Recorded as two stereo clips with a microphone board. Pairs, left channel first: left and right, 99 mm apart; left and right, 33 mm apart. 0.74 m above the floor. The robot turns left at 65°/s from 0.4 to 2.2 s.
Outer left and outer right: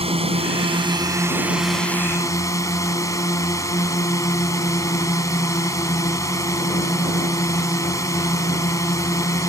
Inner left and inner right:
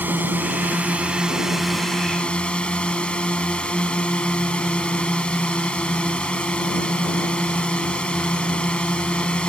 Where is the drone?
95° right; by 9.5 s 145° left.